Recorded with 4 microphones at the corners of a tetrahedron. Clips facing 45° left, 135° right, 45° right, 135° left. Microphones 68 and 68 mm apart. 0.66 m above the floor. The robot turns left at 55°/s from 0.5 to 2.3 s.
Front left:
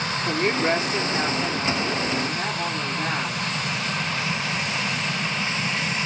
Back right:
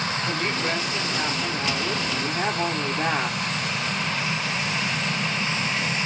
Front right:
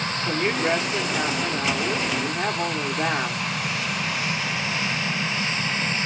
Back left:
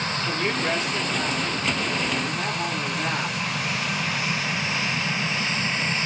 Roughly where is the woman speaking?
Ahead.